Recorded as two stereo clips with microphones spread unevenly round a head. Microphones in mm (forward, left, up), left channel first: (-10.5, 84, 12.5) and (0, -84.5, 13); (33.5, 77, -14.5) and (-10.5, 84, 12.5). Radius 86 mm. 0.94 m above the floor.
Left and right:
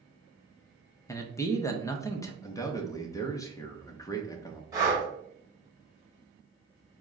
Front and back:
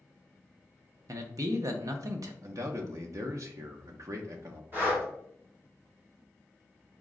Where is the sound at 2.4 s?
160° left, 0.6 m.